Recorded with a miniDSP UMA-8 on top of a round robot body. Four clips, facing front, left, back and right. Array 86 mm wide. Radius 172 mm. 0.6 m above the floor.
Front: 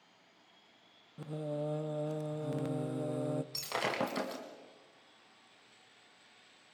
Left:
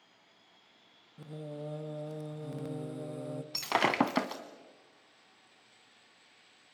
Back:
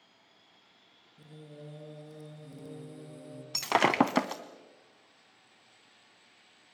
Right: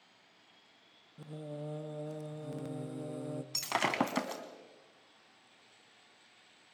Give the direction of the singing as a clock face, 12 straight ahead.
12 o'clock.